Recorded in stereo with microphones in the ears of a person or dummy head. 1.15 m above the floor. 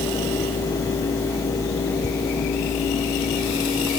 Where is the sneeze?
No sneeze in this recording.